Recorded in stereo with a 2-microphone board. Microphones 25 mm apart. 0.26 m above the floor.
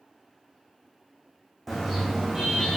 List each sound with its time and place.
1.7 s a car horn: 10° left (ahead or behind), 6 m